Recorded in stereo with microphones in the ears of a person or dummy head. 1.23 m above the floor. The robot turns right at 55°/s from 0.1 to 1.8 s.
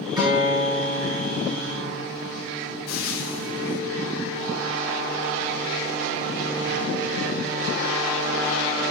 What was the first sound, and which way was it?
A guitar, 160° right.